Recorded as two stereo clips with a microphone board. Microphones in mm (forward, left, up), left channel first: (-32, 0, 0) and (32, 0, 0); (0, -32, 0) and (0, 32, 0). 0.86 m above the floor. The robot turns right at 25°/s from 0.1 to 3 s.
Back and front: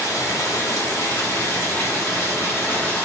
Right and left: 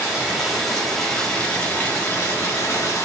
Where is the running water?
170° left, 1.1 m; by 3.1 s 120° right, 1.1 m.